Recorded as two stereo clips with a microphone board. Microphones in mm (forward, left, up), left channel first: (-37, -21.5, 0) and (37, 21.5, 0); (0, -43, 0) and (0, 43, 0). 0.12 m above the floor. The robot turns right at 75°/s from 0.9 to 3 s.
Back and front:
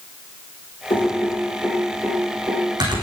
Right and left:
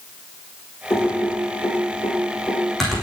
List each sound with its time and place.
0.9 s typing on a keyboard: 145° right, 7.5 m; by 3.0 s 10° left, 7.5 m